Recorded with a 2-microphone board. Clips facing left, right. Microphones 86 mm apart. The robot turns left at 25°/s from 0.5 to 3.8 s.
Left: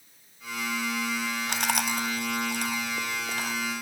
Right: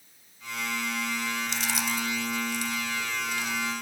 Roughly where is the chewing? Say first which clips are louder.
Left 3 dB; left.